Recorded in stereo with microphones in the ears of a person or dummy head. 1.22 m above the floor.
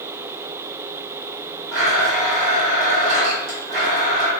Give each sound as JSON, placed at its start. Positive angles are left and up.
{"t": 1.7, "sound": "a blender", "side_deg": -55, "distance_m": 1.2}